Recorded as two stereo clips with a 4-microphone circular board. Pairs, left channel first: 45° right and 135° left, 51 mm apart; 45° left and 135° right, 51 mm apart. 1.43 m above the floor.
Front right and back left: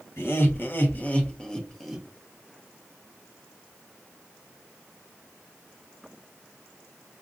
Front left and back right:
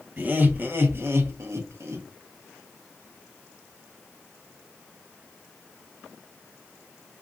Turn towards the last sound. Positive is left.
turn(degrees=-140)